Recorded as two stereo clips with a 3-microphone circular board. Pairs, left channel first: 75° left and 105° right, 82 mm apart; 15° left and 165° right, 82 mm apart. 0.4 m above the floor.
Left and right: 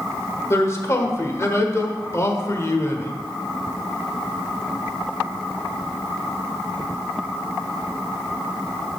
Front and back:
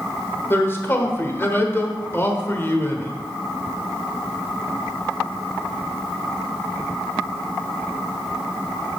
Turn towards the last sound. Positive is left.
turn(degrees=55)